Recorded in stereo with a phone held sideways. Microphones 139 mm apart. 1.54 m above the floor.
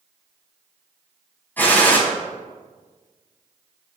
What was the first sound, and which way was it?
A gunshot, 15° left (ahead or behind).